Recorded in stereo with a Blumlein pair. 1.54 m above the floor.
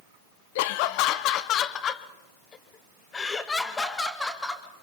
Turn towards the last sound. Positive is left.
turn(degrees=5)